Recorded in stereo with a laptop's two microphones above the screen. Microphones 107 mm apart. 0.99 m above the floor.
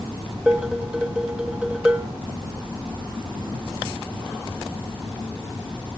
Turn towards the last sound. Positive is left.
turn(degrees=-10)  # may be behind; listen again after turning